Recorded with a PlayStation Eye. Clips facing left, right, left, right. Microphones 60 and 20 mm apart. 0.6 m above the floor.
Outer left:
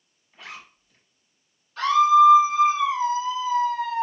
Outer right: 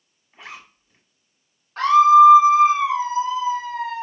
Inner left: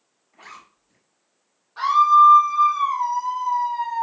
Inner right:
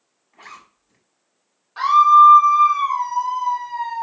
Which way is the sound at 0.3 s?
25° right (ahead or behind).